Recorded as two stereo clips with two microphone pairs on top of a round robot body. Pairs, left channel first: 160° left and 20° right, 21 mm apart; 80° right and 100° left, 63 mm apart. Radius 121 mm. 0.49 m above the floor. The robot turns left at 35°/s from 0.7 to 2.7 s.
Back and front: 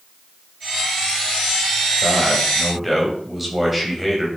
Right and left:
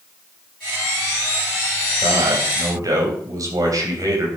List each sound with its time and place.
2.0 s a man speaking: 90° left, 4.5 m; by 4.3 s 65° left, 4.5 m